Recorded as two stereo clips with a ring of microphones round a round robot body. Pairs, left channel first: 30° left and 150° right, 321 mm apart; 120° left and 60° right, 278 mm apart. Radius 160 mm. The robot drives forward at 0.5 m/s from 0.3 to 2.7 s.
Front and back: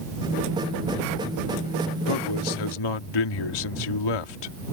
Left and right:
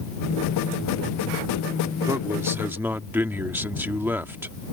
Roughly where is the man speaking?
Ahead.